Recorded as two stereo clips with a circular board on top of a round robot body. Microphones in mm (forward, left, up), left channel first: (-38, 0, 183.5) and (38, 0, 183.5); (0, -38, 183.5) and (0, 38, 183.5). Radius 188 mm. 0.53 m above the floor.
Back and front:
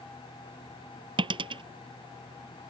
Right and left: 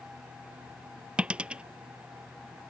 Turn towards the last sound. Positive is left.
turn(degrees=10)